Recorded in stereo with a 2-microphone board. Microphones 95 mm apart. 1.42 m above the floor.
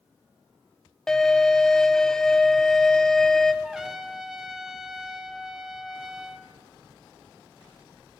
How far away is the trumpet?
About 0.8 m.